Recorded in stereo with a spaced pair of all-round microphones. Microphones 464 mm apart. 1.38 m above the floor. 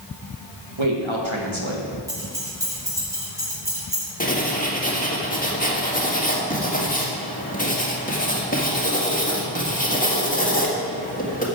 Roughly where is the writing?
Centre.